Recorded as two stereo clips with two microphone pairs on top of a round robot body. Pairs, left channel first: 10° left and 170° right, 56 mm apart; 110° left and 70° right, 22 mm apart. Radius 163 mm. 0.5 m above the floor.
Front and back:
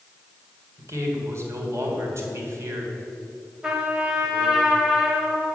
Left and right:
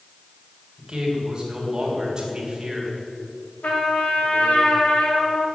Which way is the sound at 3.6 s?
110° left.